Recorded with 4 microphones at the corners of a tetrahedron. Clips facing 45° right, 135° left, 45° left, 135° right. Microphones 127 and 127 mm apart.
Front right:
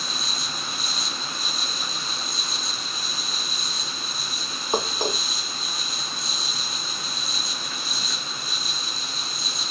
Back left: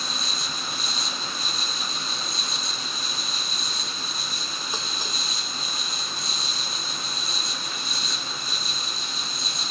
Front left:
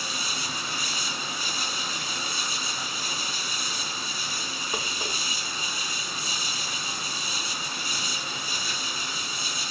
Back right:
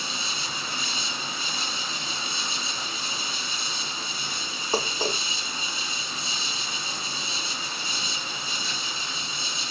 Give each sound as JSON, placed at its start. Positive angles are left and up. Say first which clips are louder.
{"t": 0.0, "sound": "an insect", "louder": "even, even", "azimuth_deg": -135}
{"t": 4.7, "sound": "dishes clattering", "louder": "front right 13 dB, back right 8 dB", "azimuth_deg": -80}